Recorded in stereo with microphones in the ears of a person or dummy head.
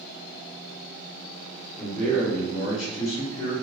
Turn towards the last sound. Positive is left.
turn(degrees=65)  # may be behind; listen again after turning